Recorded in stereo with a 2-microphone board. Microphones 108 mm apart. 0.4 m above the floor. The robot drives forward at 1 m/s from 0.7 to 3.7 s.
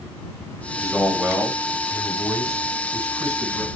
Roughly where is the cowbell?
No cowbell in this recording.